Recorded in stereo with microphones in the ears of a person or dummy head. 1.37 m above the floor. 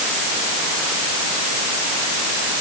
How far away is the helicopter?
No helicopter in this recording.